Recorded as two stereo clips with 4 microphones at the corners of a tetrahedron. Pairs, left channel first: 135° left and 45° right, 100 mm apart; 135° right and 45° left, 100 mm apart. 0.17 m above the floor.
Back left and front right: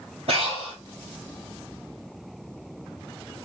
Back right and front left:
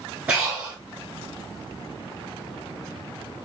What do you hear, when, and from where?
0.3 s breathing: 30° right, 1.4 m